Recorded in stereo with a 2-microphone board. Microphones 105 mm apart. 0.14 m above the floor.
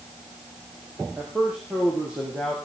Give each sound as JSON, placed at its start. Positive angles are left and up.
{"t": 1.2, "sound": "a man speaking", "side_deg": -10, "distance_m": 5.5}